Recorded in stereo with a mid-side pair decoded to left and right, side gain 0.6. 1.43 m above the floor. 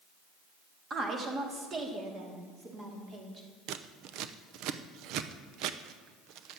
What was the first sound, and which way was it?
A woman speaking, 35° right.